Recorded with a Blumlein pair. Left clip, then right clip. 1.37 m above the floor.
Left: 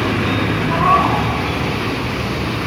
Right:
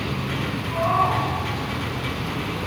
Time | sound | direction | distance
0.7 | a cat meowing | 25° left | 2.5 m